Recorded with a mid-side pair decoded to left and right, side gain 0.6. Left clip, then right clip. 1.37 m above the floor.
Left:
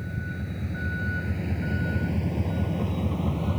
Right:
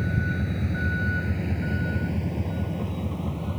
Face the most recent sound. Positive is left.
turn(degrees=20)